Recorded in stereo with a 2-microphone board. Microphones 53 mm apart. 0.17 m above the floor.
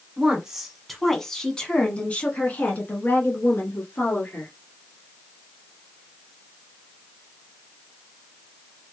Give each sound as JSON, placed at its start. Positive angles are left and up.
{"t": 0.2, "sound": "a woman speaking", "side_deg": -15, "distance_m": 1.1}